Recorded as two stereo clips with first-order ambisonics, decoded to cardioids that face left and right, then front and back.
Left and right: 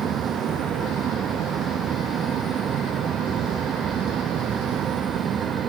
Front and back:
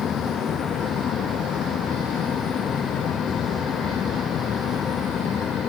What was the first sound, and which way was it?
Only background noise.